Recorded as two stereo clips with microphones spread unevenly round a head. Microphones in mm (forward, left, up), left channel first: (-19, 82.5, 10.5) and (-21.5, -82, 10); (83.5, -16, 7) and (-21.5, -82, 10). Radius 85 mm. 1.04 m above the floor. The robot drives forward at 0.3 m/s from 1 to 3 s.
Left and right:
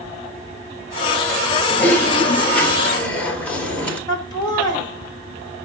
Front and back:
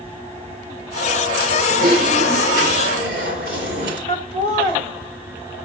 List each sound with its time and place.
1.7 s typing on a keyboard: 170° left, 1.5 m
4.1 s laughter: 155° left, 3 m